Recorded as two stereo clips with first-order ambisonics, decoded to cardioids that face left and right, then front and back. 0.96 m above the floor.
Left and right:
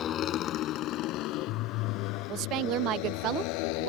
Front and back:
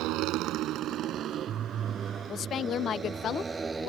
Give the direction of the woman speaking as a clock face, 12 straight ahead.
2 o'clock.